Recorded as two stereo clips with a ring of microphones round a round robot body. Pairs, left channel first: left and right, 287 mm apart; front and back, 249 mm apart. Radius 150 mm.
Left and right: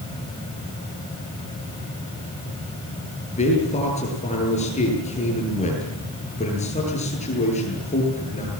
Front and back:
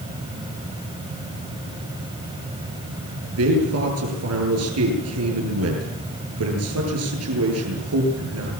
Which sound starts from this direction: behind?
A man speaking, at 3.3 s.